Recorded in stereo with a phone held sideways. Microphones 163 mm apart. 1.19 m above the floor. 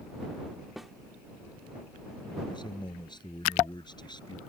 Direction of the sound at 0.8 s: Centre (ahead or behind).